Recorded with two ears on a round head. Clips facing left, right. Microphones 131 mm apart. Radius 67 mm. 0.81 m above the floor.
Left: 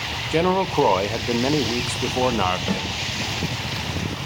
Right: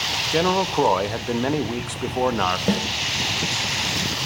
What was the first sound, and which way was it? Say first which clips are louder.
A man speaking: left 1 dB; 5° left (ahead or behind).